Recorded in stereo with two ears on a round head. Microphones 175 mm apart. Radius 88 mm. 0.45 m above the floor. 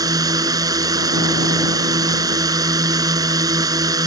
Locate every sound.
0.0 s a drone: 20° right (ahead or behind)